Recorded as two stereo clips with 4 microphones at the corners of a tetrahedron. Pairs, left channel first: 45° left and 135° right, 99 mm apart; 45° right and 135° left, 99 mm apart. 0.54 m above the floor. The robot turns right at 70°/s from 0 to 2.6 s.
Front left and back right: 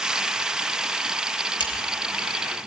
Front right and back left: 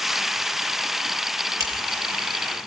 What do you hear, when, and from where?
1.6 s scissors: 80° left, 5 m; by 1.7 s 90° left, 5 m